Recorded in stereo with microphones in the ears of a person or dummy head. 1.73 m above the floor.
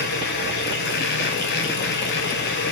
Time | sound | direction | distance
0.0 | a machine running | 60° left (ahead or behind) | 1.0 m